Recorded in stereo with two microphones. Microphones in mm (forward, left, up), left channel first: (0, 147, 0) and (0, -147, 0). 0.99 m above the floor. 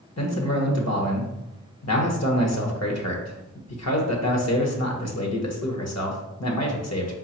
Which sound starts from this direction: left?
A man speaking, at 0.2 s.